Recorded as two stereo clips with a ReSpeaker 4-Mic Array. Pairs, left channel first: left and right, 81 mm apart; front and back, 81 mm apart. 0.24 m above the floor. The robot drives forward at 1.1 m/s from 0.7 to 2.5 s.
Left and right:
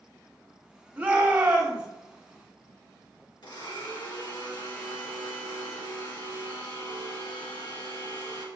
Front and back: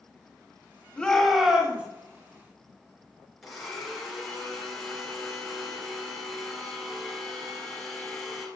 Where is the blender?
90° left, 3 m.